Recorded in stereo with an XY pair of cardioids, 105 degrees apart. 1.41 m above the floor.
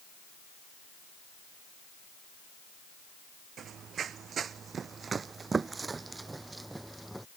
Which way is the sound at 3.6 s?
60° right.